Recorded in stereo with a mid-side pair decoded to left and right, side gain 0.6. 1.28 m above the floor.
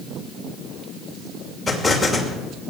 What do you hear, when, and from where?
1.7 s an explosion: 10° left, 2.5 m